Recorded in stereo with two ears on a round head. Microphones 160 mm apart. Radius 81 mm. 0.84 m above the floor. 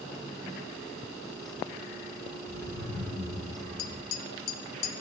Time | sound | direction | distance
2.5 | laughter | 15° left (ahead or behind) | 3 m
3.8 | tapping | 80° left | 0.7 m